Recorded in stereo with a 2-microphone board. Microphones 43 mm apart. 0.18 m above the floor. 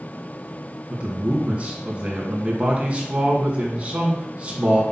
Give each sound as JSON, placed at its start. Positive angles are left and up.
{"t": 0.9, "sound": "a man speaking", "side_deg": -30, "distance_m": 2.0}